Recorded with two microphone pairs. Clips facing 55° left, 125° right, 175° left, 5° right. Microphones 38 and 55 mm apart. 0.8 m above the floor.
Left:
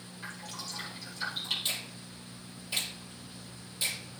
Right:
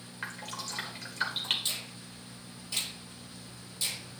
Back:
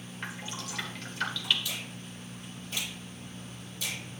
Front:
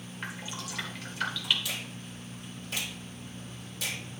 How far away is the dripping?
About 1.4 m.